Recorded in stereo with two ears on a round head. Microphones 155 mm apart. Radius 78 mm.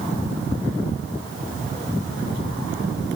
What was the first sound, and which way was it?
Only background noise.